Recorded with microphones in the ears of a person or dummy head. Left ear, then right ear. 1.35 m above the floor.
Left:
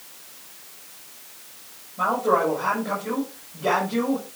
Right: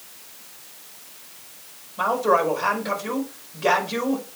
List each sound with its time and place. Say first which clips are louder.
2.0 s a woman speaking: right 1 dB; 80° right, 5.5 m